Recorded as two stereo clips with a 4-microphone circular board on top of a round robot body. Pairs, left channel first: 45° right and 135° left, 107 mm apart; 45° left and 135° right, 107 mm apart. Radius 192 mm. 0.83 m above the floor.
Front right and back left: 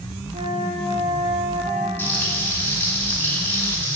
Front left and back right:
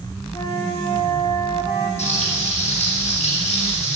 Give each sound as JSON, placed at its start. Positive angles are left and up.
{"t": 0.3, "sound": "a flute", "azimuth_deg": 105, "distance_m": 1.1}
{"t": 2.0, "sound": "frying", "azimuth_deg": 30, "distance_m": 4.0}